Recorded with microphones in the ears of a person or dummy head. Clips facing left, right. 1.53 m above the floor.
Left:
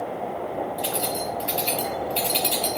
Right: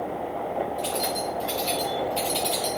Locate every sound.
0.8 s keys jangling: 20° left (ahead or behind), 2.5 m; by 2.8 s 30° left (ahead or behind), 1.8 m